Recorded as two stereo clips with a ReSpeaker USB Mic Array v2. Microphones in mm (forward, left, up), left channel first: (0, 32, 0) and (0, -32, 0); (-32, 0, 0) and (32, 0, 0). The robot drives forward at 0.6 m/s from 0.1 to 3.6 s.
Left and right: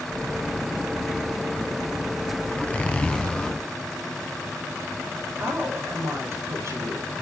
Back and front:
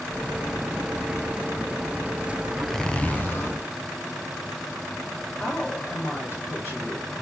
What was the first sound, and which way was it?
A zipper, 70° left.